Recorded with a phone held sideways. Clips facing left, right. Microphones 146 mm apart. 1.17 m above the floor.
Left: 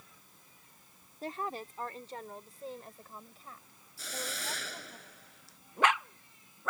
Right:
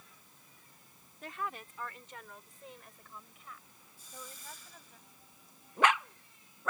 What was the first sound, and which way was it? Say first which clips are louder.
A woman speaking: left 3 dB; 35° left (ahead or behind).